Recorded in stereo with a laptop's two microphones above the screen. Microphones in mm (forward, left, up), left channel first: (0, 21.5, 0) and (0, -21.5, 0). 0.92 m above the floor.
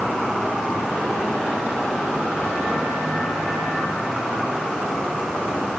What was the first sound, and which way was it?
Only background noise.